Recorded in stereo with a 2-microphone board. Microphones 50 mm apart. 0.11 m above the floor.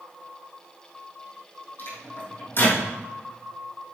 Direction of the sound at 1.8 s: 50° left (ahead or behind).